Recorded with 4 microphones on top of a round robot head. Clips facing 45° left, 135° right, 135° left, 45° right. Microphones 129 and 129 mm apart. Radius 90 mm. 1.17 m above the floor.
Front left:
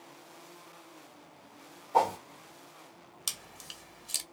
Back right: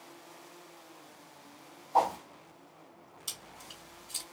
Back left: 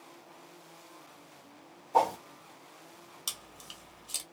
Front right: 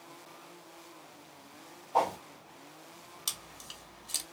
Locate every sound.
1.9 s a whoosh: 90° left, 1.3 m
3.3 s chewing: 45° left, 1.0 m